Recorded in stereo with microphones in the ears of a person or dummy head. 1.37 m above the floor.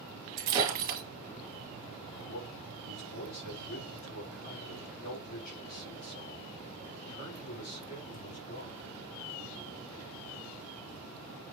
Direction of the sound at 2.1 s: 60° left (ahead or behind).